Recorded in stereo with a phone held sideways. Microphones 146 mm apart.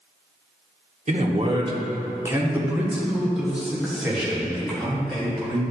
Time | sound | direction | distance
1.1 | a man speaking | 50° right (ahead or behind) | 0.8 m